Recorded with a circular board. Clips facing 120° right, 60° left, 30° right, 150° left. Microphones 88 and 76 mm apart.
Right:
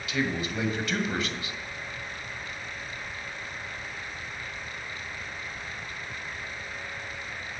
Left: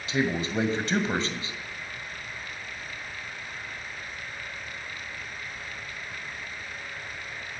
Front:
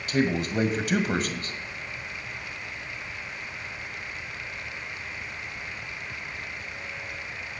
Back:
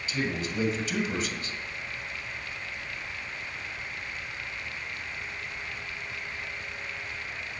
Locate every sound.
0.1 s a man speaking: straight ahead, 2 m